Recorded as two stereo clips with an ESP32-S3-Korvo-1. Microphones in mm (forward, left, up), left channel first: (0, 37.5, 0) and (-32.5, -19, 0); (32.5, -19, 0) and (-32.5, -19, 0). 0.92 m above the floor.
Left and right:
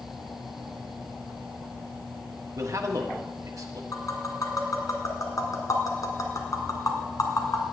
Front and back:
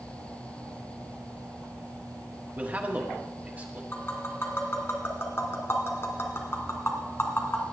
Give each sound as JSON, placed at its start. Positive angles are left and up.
{"t": 2.6, "sound": "a man speaking", "azimuth_deg": -120, "distance_m": 1.4}
{"t": 3.9, "sound": "tapping", "azimuth_deg": 45, "distance_m": 1.7}